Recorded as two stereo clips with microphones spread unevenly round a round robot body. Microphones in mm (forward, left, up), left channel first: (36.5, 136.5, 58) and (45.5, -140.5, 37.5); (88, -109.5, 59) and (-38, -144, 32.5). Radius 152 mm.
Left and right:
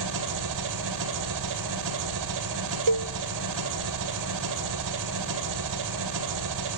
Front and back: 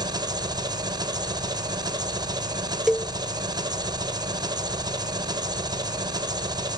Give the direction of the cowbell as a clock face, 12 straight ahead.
3 o'clock.